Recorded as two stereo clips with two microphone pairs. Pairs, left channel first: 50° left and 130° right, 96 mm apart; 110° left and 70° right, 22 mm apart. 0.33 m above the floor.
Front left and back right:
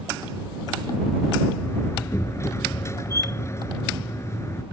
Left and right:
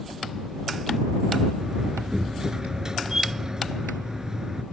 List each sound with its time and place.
1.6 s a door slam: 10° right